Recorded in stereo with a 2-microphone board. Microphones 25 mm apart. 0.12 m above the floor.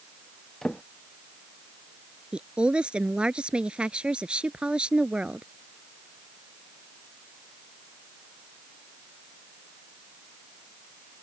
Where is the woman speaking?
40° right (ahead or behind).